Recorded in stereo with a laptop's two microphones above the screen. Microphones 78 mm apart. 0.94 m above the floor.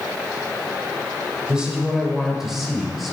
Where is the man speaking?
10° right (ahead or behind), 5 m; by 3.1 s centre (ahead or behind), 5 m.